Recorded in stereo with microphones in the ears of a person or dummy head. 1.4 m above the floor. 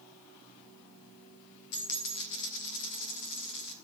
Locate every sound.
1.7 s a dropped coin: 55° left (ahead or behind), 2.0 m